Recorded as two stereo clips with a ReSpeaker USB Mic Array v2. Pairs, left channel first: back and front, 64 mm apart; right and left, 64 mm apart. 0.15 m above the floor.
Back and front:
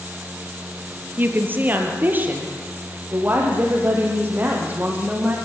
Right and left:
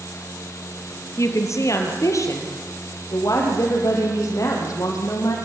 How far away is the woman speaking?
About 3.5 m.